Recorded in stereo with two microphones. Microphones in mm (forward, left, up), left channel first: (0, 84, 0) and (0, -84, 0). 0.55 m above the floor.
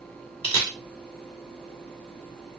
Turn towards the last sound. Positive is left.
turn(degrees=30)  # may be behind; listen again after turning